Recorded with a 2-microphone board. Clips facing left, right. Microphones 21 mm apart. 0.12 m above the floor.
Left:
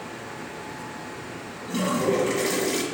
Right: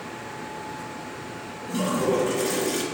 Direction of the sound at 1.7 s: 40° left (ahead or behind).